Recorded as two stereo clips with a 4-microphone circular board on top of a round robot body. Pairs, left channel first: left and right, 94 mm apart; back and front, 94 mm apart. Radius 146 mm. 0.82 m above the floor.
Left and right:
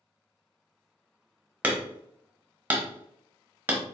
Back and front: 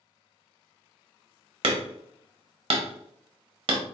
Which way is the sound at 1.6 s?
20° right.